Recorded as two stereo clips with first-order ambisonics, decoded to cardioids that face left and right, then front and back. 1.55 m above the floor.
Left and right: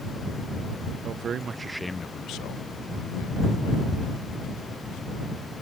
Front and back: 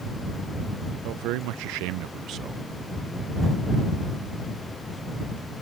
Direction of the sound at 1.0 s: 145° right.